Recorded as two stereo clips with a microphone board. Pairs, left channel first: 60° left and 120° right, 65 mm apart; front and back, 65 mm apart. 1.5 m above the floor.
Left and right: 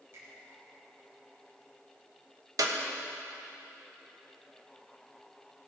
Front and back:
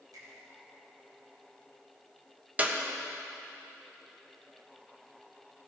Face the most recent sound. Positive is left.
turn(degrees=-115)